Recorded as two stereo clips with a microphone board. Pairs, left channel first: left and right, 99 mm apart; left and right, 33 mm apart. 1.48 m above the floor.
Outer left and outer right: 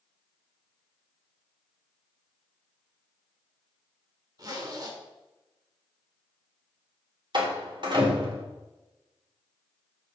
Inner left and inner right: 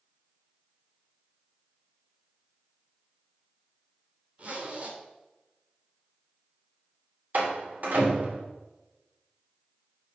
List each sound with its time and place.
4.4 s a zipper: 40° right (ahead or behind), 2.5 m
7.3 s a door slam: 55° right (ahead or behind), 3 m